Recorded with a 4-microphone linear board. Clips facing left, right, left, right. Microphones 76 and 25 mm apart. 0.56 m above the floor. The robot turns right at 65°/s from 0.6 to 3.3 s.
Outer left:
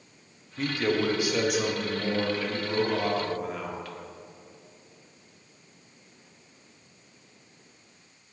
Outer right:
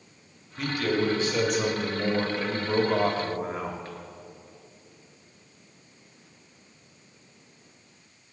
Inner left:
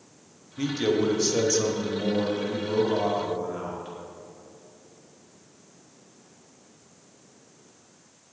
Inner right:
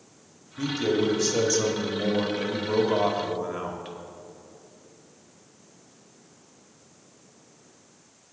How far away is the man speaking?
About 1.2 m.